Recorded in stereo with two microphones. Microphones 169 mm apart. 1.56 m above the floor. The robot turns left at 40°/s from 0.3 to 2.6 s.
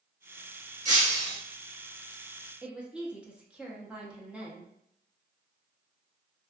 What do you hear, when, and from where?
0.8 s breaking glass: 45° right (ahead or behind), 1.3 m; by 1.4 s 35° right (ahead or behind), 1.3 m
2.6 s a woman speaking: 5° right (ahead or behind), 0.7 m